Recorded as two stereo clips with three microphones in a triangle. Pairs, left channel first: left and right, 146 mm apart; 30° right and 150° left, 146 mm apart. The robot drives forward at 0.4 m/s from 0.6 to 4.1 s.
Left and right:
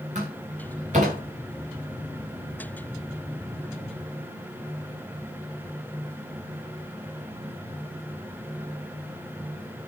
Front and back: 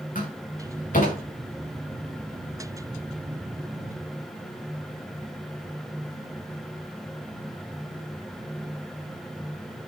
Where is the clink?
I don't hear a clink.